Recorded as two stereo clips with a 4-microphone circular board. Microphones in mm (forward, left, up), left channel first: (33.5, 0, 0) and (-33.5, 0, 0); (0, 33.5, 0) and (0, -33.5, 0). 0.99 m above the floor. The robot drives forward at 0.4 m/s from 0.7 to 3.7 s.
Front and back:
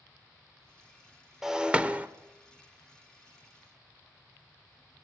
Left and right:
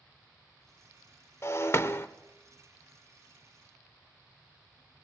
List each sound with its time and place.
1.4 s breaking glass: 100° left, 0.7 m; by 2.1 s 125° left, 0.8 m